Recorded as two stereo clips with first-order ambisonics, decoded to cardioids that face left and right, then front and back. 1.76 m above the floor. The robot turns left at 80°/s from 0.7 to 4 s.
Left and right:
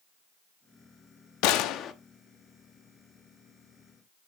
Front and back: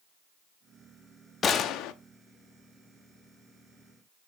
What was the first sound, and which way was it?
A gunshot, 70° left.